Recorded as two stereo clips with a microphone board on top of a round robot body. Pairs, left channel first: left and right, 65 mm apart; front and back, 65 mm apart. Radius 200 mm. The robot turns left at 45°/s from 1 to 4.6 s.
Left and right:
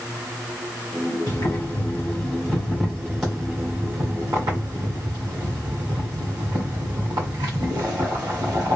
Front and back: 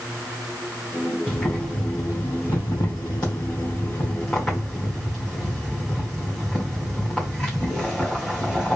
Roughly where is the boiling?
Left.